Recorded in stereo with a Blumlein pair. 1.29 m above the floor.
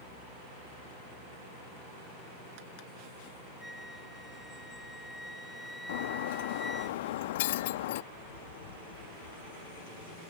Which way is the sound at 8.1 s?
65° left.